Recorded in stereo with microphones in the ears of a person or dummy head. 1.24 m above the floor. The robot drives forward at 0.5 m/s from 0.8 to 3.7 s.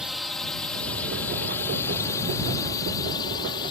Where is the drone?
Centre (ahead or behind); by 3.7 s 30° left (ahead or behind).